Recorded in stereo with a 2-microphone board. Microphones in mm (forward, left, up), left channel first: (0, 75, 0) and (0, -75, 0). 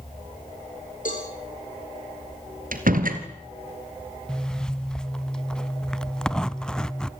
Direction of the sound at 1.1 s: 60° left (ahead or behind).